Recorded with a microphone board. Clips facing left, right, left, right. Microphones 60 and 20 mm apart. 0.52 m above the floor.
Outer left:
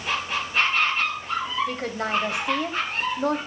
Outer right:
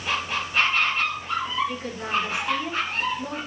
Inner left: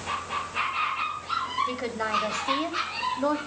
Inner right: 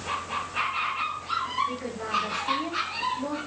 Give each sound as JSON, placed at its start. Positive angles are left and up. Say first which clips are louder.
{"t": 1.7, "sound": "a woman speaking", "louder": "outer left 2 dB, inner left 2 dB", "side_deg": 70, "distance_m": 3.0}